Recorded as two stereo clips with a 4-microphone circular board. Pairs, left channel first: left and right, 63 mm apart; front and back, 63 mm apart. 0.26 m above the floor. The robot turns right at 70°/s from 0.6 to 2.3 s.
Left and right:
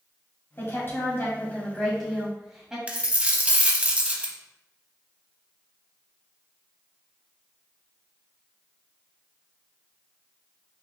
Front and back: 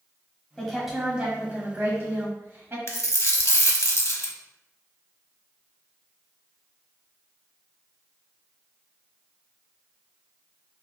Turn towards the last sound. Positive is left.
turn(degrees=-25)